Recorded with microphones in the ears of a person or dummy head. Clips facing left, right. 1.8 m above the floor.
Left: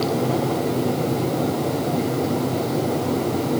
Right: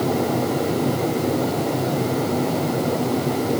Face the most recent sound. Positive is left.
No sound to turn to.